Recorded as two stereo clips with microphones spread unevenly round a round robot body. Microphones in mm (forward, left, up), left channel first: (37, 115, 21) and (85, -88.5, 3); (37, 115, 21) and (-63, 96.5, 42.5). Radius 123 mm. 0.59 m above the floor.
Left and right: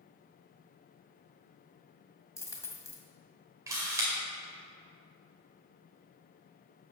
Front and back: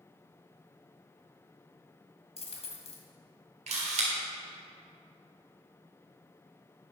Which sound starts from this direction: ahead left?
A dropped coin, at 2.4 s.